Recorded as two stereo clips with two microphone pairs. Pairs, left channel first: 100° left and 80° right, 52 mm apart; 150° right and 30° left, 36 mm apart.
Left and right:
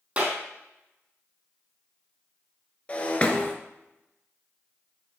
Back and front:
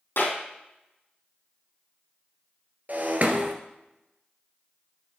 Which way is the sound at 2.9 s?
40° left.